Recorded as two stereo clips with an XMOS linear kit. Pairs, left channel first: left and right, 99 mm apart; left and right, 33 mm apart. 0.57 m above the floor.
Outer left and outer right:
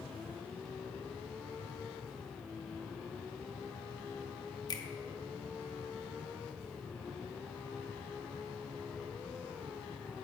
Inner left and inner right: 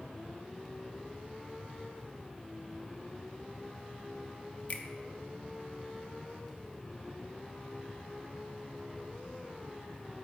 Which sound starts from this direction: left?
A finger snap, at 4.7 s.